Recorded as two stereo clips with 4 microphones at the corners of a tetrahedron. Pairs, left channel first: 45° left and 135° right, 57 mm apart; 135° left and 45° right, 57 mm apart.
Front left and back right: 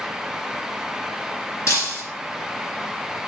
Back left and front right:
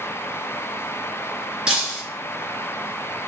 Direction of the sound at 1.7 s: 25° left.